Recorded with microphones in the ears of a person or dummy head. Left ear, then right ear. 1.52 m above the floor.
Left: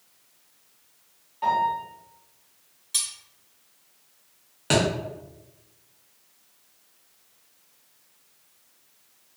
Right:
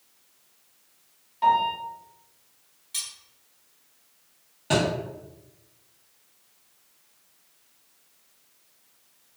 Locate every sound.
1.4 s a piano: 25° right (ahead or behind), 1.0 m
2.9 s cutlery clinking: 5° left (ahead or behind), 1.7 m
4.7 s a thud: 20° left (ahead or behind), 1.0 m